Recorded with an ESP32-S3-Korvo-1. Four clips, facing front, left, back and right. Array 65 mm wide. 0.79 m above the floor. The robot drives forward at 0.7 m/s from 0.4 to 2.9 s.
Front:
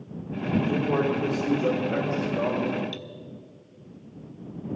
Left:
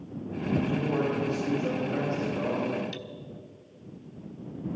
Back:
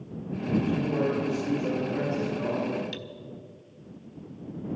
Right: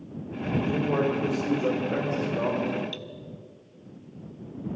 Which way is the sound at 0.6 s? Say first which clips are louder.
Right 4 dB, front 3 dB; 45° right.